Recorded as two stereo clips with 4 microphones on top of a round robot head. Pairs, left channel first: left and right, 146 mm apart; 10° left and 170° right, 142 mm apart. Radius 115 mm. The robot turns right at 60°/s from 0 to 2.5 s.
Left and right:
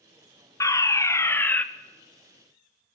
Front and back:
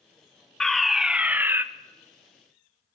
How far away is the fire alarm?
About 1.1 m.